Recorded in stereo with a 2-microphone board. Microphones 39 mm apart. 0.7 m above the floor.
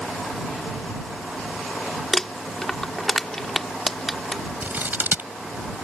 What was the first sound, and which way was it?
Crumpling, 15° left (ahead or behind).